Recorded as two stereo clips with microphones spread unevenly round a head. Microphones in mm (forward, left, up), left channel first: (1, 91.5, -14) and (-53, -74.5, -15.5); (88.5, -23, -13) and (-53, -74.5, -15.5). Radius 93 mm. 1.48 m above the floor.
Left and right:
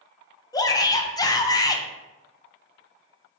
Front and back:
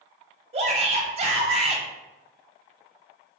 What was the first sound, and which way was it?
A shout, 140° left.